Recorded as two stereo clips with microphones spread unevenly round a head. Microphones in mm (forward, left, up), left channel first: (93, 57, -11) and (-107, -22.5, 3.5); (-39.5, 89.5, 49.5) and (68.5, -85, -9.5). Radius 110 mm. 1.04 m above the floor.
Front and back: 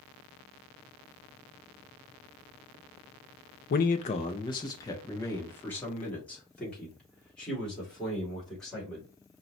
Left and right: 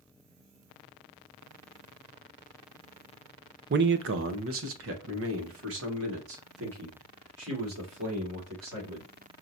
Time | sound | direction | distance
3.7 | a man speaking | 25° right | 0.5 m